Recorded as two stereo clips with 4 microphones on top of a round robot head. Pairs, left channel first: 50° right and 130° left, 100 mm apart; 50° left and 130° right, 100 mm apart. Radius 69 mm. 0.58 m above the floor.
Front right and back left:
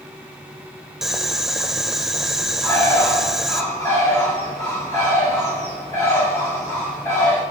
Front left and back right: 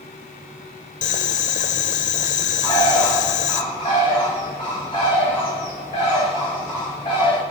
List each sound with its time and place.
1.0 s boiling: 40° left, 0.6 m
2.6 s a bird: 10° left, 6 m